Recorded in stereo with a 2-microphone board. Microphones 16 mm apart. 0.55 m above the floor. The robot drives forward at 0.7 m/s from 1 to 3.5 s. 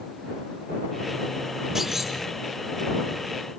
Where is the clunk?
30° right (ahead or behind), 4.5 m; by 2.2 s 35° right (ahead or behind), 4.5 m.